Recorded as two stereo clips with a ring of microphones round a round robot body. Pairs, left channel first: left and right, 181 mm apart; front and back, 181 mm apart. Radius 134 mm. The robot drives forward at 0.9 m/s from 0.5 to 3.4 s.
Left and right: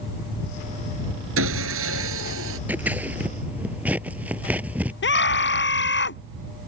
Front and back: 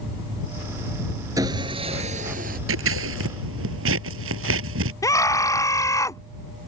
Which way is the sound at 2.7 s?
175° right.